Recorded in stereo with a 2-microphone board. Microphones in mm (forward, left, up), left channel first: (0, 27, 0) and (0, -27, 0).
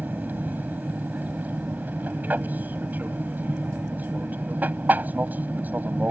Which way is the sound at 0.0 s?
30° right (ahead or behind).